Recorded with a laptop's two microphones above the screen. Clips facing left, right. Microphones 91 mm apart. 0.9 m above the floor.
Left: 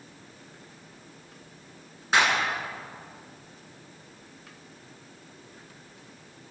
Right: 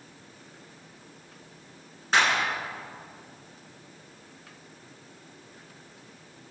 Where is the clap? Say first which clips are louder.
Even; 5° left (ahead or behind), 9.5 m.